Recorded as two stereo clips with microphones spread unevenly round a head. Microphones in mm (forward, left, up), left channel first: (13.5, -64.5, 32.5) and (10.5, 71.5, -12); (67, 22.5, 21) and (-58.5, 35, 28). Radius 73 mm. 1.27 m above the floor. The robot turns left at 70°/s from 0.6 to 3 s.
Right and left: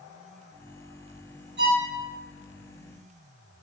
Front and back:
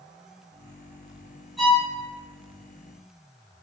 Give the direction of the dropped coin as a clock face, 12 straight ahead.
I don't hear a dropped coin.